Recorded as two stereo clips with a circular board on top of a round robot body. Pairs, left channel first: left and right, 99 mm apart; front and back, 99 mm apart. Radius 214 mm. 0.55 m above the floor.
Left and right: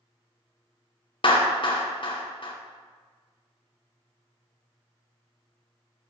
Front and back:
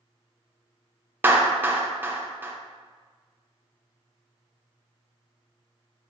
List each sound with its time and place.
1.2 s a clap: 115° left, 0.8 m